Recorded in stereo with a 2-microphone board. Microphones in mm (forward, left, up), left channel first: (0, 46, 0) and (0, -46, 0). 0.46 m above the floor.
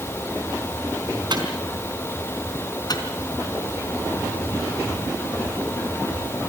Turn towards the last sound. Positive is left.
turn(degrees=45)  # may be behind; listen again after turning